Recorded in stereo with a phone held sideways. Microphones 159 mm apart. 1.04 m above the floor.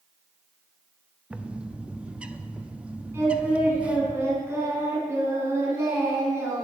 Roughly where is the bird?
Centre.